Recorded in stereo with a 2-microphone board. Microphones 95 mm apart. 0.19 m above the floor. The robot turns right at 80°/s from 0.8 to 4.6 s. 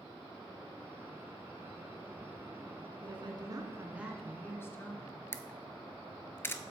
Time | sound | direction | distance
3.0 | a woman speaking | 95° right | 1.5 m
5.3 | a camera shutter | 25° left (ahead or behind) | 0.6 m